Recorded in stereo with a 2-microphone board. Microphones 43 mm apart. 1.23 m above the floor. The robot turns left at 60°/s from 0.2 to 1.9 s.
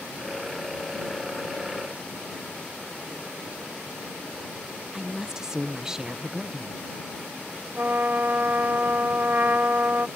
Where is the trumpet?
50° right (ahead or behind).